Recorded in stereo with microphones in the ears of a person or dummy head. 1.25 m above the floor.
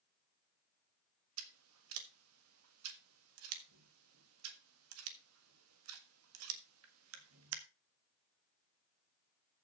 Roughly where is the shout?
No shout in this recording.